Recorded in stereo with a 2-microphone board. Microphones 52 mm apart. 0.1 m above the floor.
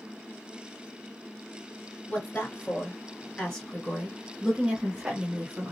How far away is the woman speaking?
About 2.0 m.